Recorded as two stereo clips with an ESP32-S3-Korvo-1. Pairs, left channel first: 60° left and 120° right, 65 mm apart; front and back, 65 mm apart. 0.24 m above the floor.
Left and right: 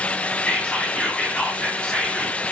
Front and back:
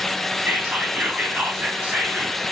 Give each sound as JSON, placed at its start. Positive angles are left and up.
{"t": 0.5, "sound": "whispering", "azimuth_deg": 125, "distance_m": 1.4}